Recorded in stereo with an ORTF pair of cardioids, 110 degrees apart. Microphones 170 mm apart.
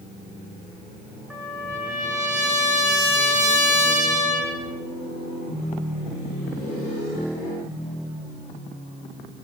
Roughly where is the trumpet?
Ahead.